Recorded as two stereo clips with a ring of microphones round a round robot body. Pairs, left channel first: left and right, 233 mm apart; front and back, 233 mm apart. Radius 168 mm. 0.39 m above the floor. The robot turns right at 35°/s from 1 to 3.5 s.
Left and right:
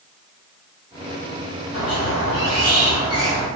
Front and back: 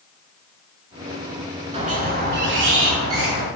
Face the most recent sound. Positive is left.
turn(degrees=180)